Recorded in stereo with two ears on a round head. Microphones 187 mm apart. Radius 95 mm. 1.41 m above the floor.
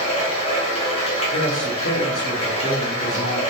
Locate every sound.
0.0 s running water: 30° left (ahead or behind), 2.5 m
1.3 s a man speaking: 60° left (ahead or behind), 1.9 m